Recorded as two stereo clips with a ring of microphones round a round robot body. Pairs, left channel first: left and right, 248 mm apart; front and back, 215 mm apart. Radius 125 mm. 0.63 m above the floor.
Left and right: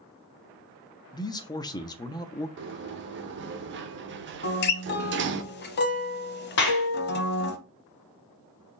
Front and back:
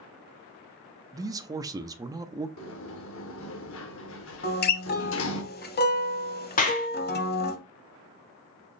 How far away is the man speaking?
About 0.5 m.